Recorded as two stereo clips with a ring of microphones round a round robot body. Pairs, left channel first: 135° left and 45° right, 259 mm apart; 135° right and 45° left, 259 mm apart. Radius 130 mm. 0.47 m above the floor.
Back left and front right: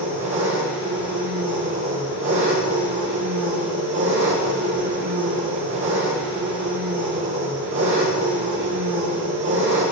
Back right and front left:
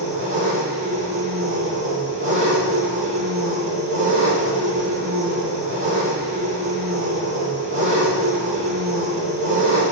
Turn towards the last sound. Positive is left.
turn(degrees=0)